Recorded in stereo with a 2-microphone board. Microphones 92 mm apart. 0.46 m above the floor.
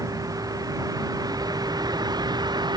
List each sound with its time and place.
0.0 s a vehicle: 40° right (ahead or behind); by 2.8 s 50° right (ahead or behind)